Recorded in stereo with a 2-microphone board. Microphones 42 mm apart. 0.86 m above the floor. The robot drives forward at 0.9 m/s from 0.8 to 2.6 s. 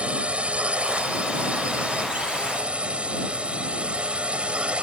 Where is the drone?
30° right (ahead or behind).